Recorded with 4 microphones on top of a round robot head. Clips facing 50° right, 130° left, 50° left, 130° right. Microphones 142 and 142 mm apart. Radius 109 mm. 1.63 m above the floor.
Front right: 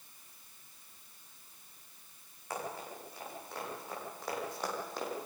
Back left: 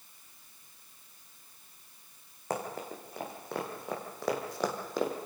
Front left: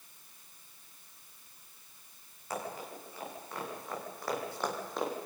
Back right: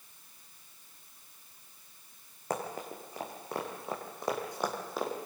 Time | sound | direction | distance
2.5 | running footsteps | straight behind | 5 m